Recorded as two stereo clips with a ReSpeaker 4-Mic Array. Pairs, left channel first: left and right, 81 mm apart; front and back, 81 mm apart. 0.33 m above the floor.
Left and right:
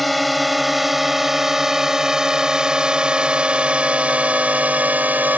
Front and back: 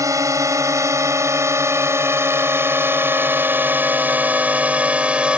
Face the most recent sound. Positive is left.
turn(degrees=-125)